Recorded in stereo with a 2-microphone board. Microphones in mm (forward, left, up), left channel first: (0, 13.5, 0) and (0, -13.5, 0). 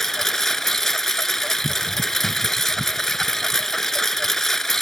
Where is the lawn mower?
15° left (ahead or behind).